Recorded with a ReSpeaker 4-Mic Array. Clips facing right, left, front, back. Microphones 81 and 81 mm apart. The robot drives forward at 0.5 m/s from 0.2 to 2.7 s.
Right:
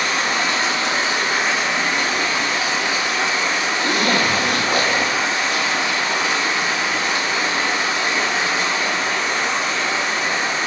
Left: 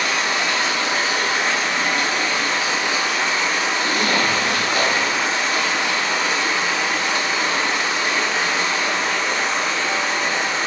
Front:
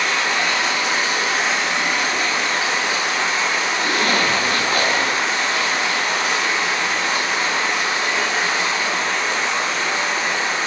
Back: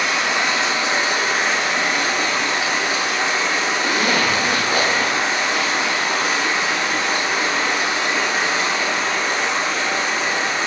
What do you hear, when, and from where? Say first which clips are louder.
0.0 s running water: right 1 dB, even; 115° right, 0.8 m; by 10.7 s 160° right, 1.7 m
3.8 s a zipper: right 3 dB, even; 105° right, 0.6 m